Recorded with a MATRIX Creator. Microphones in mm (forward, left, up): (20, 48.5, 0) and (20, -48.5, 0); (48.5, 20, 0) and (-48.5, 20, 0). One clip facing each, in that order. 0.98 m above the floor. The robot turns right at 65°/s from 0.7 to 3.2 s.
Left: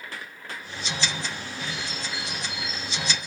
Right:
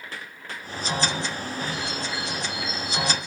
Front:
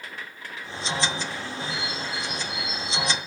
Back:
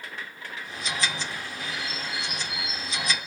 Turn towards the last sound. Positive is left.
turn(degrees=160)